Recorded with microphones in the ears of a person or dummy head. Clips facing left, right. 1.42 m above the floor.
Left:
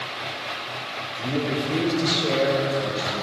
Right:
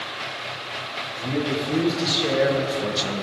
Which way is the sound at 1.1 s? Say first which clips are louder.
Even; 5° left (ahead or behind).